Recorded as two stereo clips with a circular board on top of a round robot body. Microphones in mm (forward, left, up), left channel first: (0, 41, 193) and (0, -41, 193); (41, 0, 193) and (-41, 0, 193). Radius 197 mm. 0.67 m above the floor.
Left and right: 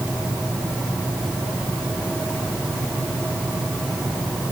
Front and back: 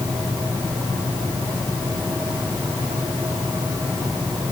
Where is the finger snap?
No finger snap in this recording.